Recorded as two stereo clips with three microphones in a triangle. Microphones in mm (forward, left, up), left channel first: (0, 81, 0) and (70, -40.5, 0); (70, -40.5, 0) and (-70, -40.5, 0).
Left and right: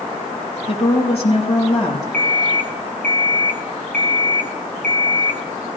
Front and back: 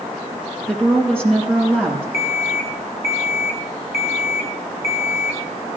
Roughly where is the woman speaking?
Left.